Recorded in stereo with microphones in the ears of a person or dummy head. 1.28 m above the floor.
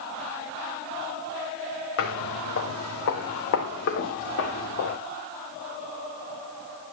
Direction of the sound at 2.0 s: 60° left (ahead or behind).